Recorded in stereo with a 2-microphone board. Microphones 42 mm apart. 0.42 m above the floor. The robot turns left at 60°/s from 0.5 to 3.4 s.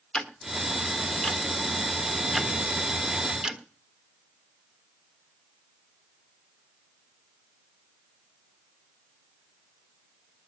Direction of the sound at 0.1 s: 20° left (ahead or behind).